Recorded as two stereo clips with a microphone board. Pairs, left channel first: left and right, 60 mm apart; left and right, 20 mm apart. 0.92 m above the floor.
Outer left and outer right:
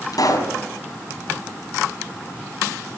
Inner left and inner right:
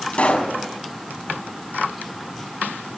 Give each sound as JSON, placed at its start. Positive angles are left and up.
{"t": 0.1, "sound": "a pop", "side_deg": 85, "distance_m": 6.0}